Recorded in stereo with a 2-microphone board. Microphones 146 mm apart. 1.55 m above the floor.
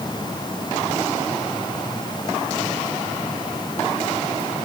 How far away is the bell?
I don't hear a bell.